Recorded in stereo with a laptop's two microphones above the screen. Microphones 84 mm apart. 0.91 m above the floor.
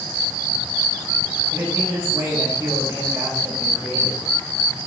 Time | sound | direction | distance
1.5 | a man speaking | 30° right (ahead or behind) | 5 m